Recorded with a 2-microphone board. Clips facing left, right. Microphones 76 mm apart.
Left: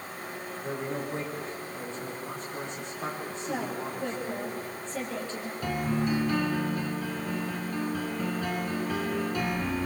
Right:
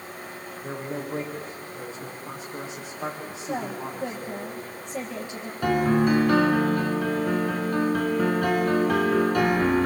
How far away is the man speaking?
About 7.5 m.